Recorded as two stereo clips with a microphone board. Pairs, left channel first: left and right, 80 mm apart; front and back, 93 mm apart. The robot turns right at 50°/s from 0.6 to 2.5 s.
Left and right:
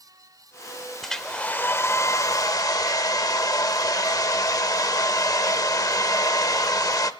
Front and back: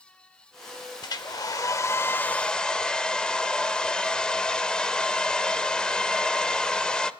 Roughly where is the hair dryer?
Ahead.